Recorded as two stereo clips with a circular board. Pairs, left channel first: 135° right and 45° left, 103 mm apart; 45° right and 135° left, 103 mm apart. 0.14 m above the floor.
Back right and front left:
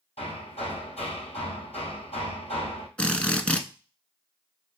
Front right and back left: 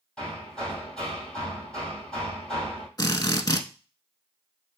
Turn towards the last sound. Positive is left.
turn(degrees=-60)